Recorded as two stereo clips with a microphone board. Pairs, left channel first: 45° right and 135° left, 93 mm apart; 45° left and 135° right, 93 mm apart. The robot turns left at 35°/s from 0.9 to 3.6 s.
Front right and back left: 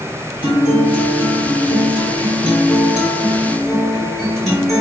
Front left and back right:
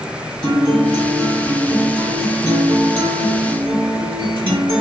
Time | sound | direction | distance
0.4 | a guitar | 35° right | 1.7 m